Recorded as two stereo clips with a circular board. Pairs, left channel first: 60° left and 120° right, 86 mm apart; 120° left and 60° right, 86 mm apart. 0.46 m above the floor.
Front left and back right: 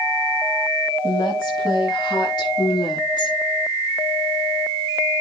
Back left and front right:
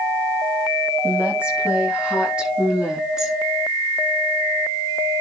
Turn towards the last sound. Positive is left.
turn(degrees=25)